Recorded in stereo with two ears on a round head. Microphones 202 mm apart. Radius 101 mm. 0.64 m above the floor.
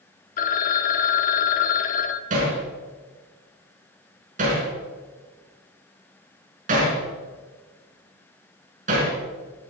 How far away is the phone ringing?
About 0.8 m.